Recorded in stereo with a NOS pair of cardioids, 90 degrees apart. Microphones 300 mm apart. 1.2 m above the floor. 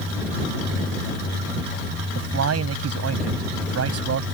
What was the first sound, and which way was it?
A man speaking, 55° right.